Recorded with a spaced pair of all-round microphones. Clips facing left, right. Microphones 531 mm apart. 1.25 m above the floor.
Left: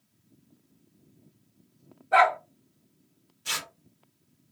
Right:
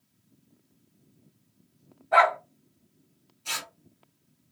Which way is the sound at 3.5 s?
40° left (ahead or behind).